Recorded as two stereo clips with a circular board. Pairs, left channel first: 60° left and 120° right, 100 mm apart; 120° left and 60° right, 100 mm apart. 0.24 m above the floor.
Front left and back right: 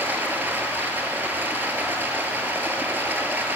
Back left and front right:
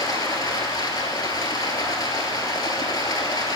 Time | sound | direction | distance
0.0 | running water | 170° left | 0.8 m